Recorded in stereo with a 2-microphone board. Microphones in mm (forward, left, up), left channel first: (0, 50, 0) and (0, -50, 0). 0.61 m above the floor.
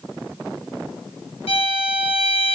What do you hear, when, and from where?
1.5 s a violin: 85° left, 1.4 m